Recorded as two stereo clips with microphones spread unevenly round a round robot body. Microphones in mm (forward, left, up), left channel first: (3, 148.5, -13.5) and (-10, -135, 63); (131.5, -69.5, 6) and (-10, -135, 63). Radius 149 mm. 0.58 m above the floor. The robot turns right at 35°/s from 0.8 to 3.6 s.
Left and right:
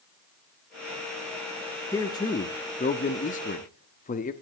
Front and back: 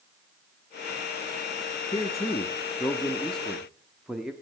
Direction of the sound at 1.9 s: 30° left.